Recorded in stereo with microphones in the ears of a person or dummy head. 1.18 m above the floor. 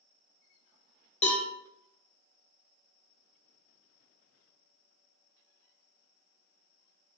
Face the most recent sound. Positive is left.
turn(degrees=35)  # may be behind; listen again after turning